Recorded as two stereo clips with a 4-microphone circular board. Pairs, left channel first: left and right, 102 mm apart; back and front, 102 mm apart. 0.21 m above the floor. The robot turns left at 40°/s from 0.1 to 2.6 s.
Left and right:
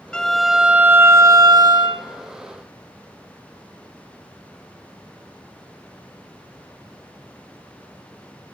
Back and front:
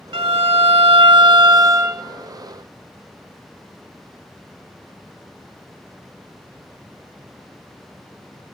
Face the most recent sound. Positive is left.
turn(degrees=-90)